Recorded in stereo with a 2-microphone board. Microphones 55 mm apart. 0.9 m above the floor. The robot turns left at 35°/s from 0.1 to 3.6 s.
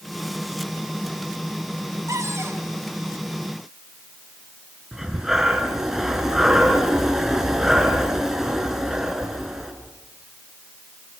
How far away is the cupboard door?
About 3 m.